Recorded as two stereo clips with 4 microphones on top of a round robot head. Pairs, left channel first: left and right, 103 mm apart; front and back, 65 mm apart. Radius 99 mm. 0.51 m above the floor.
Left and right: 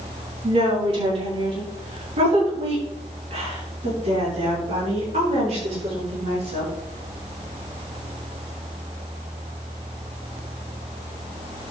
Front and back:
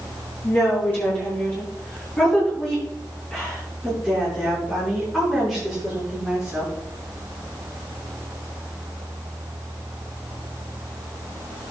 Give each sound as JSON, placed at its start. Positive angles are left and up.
{"t": 0.4, "sound": "a woman speaking", "azimuth_deg": -60, "distance_m": 6.0}